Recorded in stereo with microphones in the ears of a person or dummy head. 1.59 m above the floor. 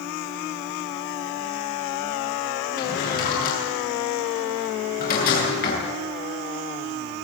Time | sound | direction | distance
2.8 | a drawer | 45° left (ahead or behind) | 9 m